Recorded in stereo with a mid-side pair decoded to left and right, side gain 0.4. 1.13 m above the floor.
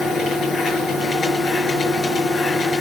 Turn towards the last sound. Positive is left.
turn(degrees=60)